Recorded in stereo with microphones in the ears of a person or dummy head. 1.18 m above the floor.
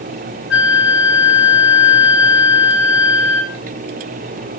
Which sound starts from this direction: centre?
A flute, at 0.5 s.